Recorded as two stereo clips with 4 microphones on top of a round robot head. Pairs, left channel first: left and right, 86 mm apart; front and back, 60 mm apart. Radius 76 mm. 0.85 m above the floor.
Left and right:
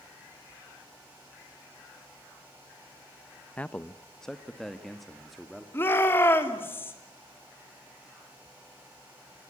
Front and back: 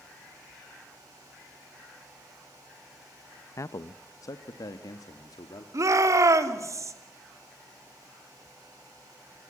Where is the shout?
155° left, 2.5 m.